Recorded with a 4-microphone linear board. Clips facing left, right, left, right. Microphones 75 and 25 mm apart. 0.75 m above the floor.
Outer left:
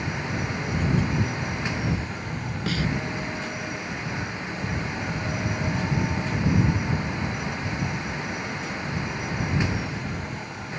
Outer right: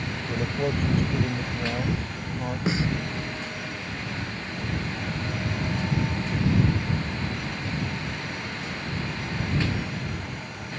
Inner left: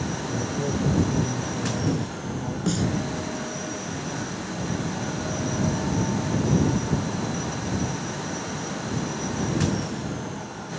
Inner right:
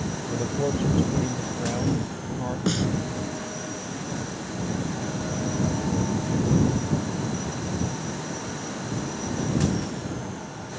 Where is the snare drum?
20° right (ahead or behind).